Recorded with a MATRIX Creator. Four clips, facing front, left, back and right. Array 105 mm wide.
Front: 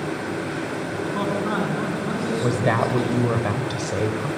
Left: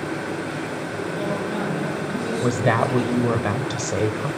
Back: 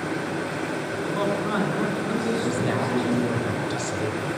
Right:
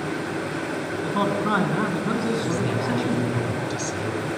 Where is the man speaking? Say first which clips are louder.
Right 4 dB, front 1 dB; 80° right, 7.5 m; by 3.4 s 90° right, 9 m.